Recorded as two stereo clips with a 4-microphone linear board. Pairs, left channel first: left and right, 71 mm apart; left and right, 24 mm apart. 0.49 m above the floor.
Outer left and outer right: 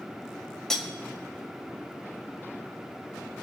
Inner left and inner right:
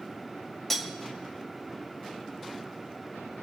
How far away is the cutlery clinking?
About 1.0 m.